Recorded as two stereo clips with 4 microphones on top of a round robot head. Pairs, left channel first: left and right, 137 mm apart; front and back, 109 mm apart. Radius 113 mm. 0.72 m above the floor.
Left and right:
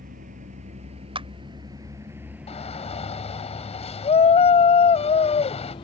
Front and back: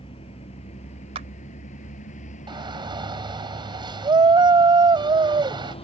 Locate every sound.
0.0 s a vehicle: 50° right; by 5.8 s 30° left
1.1 s a clap: 140° right
2.5 s a shout: 135° left